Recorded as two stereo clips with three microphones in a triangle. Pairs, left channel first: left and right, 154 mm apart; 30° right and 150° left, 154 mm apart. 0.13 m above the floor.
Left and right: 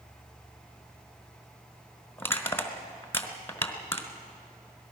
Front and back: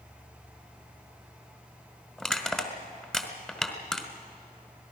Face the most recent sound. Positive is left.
turn(degrees=45)